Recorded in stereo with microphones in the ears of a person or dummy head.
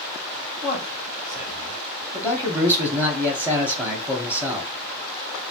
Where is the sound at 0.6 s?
5° right (ahead or behind), 1.1 m.